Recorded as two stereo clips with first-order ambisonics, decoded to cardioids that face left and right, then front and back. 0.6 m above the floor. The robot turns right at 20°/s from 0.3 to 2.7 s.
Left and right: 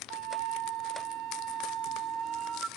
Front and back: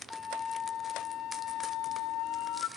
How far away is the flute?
About 0.9 m.